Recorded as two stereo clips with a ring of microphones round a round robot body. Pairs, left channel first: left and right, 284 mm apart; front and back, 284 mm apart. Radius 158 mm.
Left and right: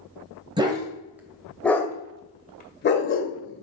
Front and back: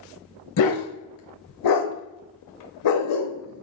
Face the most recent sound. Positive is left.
turn(degrees=55)